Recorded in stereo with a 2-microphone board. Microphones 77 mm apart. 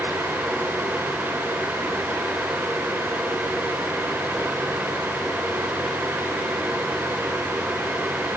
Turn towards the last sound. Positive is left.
No sound to turn to.